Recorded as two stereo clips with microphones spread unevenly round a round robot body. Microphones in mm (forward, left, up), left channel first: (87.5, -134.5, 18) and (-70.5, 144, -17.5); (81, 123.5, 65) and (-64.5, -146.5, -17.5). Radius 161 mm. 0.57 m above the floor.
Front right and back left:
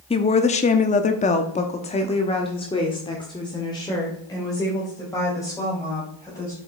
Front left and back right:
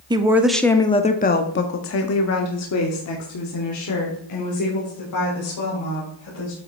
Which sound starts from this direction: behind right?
A woman speaking, at 0.1 s.